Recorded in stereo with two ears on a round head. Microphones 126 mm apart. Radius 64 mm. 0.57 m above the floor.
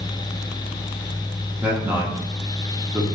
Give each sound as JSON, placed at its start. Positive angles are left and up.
{"t": 1.6, "sound": "a man speaking", "side_deg": -10, "distance_m": 0.8}